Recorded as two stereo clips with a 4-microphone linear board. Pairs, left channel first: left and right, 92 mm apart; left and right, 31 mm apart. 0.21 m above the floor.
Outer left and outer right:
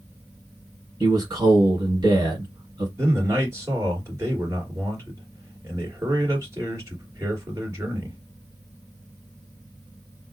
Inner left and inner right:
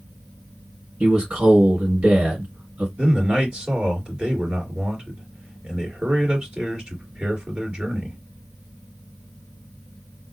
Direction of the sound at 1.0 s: 40° right (ahead or behind).